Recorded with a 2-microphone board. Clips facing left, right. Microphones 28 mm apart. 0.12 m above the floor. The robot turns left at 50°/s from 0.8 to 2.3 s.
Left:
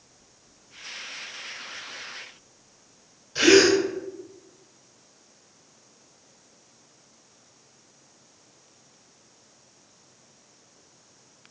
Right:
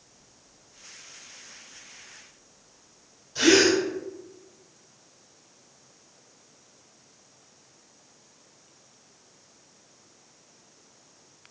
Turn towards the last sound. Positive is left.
turn(degrees=30)  # may be behind; listen again after turning